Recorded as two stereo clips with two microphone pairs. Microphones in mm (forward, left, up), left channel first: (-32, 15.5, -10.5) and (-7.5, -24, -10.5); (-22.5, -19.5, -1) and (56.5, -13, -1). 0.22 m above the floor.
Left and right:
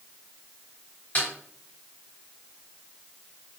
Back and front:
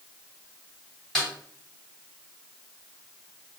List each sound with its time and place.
1.1 s a snare drum: 110° left, 1.7 m